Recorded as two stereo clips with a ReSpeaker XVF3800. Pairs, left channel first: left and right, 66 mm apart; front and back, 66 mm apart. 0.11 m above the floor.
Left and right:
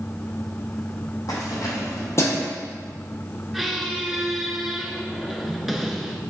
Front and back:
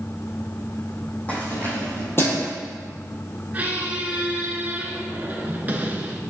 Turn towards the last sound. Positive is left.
turn(degrees=-175)